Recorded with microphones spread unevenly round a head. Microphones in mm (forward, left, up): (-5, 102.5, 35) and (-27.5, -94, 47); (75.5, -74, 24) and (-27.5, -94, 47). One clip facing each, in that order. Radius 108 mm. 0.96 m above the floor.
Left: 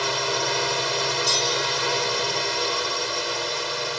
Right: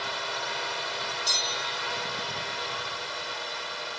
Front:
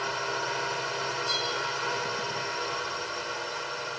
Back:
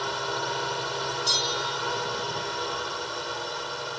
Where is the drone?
110° left.